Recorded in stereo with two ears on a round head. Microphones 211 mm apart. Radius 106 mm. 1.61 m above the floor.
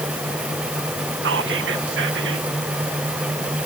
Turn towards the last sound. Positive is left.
turn(degrees=-50)  # may be behind; listen again after turning